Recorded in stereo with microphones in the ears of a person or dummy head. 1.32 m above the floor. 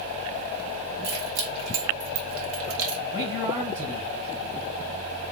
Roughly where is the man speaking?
Right.